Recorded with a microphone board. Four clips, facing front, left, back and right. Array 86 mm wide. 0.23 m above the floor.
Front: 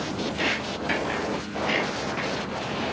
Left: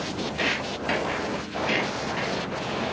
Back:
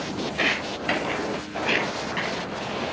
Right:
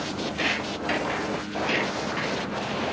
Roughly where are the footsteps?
Behind.